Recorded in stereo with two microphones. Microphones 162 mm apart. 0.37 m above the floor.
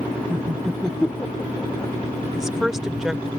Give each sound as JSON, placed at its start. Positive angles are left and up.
{"t": 0.3, "sound": "laughter", "side_deg": -20}
{"t": 2.3, "sound": "a woman speaking", "side_deg": -5}